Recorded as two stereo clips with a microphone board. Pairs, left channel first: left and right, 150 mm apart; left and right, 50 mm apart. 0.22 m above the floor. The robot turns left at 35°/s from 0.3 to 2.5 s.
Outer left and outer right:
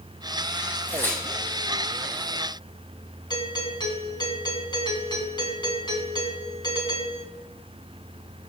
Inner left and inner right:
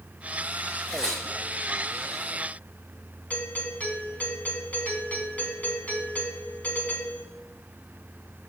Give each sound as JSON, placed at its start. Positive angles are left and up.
{"t": 0.9, "sound": "tearing paper", "side_deg": 20, "distance_m": 4.5}
{"t": 3.3, "sound": "a doorbell", "side_deg": 30, "distance_m": 2.5}